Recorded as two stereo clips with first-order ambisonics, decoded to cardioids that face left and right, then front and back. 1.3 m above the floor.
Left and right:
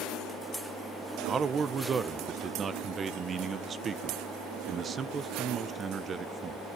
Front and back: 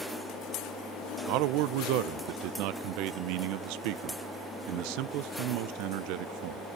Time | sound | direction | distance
1.3 | a man speaking | 160° right | 0.6 m